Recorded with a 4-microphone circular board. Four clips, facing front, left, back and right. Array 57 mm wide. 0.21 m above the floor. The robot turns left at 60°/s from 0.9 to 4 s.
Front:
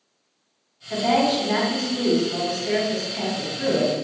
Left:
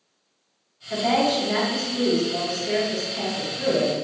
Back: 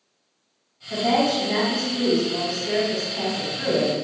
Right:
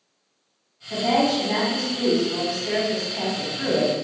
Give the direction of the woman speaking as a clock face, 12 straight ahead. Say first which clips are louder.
Even, front 1 dB; 11 o'clock.